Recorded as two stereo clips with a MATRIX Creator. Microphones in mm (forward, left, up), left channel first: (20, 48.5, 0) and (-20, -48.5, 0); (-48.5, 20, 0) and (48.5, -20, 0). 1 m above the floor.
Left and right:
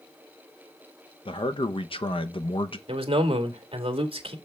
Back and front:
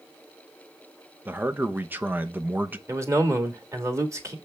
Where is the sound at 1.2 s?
45° left, 0.8 m.